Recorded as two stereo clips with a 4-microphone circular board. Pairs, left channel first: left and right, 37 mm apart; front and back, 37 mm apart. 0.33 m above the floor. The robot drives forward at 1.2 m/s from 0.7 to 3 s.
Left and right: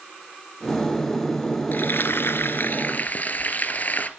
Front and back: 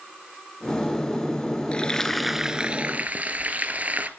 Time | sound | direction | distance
1.7 | frying | 60° left | 1.2 m